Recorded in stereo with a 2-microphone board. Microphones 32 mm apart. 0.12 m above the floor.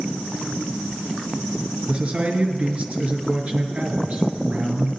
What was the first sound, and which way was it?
A man speaking, 45° right (ahead or behind).